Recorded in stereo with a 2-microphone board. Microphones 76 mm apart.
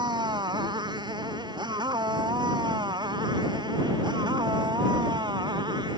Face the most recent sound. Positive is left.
turn(degrees=-70)  # may be behind; listen again after turning